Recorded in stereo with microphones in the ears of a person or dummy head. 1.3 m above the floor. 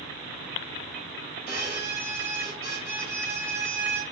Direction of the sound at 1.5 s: 15° right (ahead or behind).